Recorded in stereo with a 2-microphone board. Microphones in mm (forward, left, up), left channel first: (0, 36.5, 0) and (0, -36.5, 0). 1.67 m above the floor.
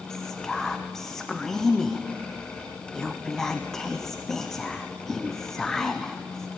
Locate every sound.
0.1 s whispering: 10° left (ahead or behind), 0.8 m